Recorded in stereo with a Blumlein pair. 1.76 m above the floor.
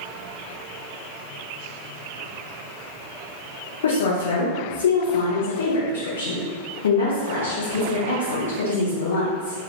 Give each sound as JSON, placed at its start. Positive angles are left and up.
{"t": 3.8, "sound": "a woman speaking", "azimuth_deg": 65, "distance_m": 1.0}